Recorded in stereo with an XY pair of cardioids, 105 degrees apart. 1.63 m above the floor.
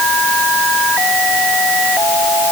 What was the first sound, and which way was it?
Only background noise.